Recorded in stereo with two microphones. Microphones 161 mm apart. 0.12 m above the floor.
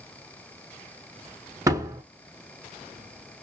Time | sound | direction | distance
1.7 | a door slam | 20° right (ahead or behind) | 0.8 m